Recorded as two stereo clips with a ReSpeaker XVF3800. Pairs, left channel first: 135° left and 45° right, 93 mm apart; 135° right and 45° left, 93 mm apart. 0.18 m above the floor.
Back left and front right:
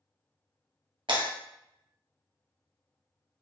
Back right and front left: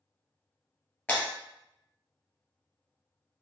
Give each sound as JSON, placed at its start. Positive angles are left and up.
{"t": 1.1, "sound": "breaking glass", "azimuth_deg": -60, "distance_m": 2.0}